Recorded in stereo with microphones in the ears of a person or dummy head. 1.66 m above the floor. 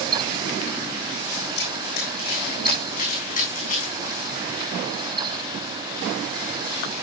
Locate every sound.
1.6 s running footsteps: 65° left (ahead or behind), 6 m; by 4.2 s 45° left (ahead or behind), 8.5 m